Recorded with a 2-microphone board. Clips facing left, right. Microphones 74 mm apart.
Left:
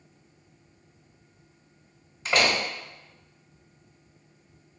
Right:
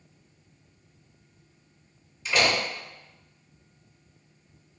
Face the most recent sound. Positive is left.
turn(degrees=50)  # may be behind; listen again after turning